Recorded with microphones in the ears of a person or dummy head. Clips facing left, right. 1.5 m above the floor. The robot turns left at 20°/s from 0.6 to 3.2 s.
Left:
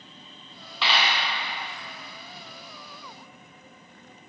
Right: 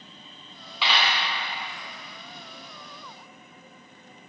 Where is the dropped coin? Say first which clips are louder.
Even; 5° right (ahead or behind), 1.2 m; by 1.1 s 10° right (ahead or behind), 1.2 m.